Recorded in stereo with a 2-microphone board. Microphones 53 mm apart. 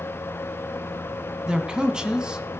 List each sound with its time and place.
1.5 s a man speaking: 15° right (ahead or behind), 1.2 m